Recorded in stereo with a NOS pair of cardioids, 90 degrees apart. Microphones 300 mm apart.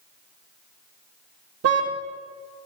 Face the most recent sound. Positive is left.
turn(degrees=-55)